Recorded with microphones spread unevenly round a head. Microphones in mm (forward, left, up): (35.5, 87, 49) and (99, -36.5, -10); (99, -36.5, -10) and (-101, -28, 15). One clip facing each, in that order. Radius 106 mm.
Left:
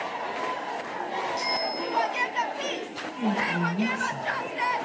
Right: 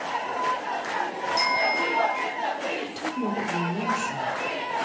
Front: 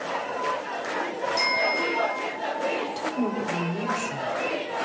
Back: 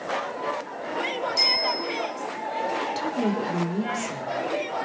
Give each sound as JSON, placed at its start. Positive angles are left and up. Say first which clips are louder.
{"t": 1.4, "sound": "a bicycle bell", "louder": "right 4 dB, front 2 dB", "azimuth_deg": -105, "distance_m": 4.5}
{"t": 2.8, "sound": "a woman speaking", "louder": "right 1 dB, back 1 dB", "azimuth_deg": -115, "distance_m": 3.0}